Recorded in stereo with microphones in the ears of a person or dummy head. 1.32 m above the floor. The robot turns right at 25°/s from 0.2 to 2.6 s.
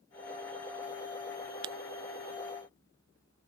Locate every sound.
1.6 s breaking glass: 30° right (ahead or behind)